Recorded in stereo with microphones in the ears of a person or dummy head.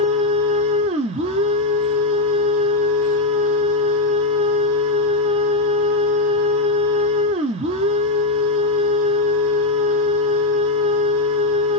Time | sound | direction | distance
0.0 | a machine running | 35° right (ahead or behind) | 0.7 m